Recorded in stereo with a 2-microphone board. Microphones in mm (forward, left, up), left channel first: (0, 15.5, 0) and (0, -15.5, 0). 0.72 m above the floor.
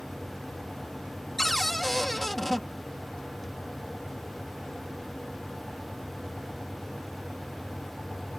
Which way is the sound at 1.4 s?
5° left (ahead or behind).